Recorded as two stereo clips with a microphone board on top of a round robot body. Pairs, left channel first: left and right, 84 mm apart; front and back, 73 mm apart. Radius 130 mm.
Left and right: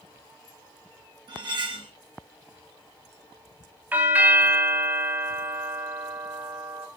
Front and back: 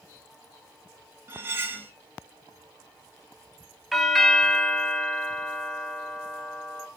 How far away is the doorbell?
About 1.2 m.